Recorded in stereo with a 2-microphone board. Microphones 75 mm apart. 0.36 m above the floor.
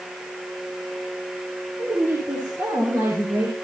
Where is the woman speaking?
40° right (ahead or behind), 8.5 m; by 3.5 s 55° right (ahead or behind), 7.5 m.